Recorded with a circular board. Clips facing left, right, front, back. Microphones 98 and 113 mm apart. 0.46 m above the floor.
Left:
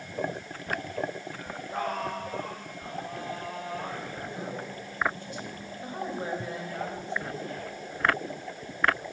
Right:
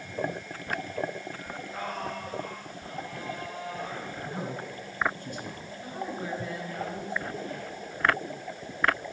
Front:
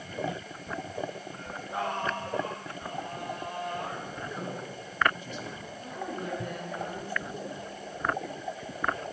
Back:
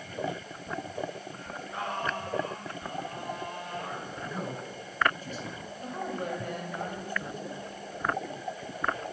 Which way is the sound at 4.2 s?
130° right.